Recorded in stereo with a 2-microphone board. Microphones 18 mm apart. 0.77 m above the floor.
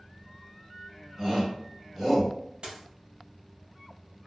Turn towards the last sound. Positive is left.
turn(degrees=-80)